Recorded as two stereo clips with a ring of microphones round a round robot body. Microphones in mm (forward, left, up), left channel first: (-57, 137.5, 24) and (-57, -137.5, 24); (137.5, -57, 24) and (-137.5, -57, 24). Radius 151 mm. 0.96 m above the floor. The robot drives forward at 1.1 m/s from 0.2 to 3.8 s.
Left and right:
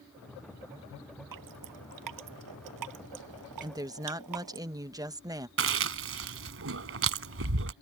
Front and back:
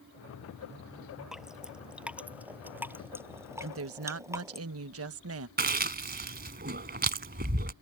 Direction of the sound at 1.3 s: 90° right.